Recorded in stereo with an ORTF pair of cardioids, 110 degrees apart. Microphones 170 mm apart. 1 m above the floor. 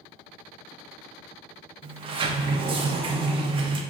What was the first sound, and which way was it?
A sliding door, 30° right.